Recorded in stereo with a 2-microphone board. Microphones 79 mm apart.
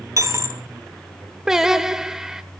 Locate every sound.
0.2 s a dropped coin: 45° right (ahead or behind), 0.6 m
1.5 s singing: 10° right (ahead or behind), 0.6 m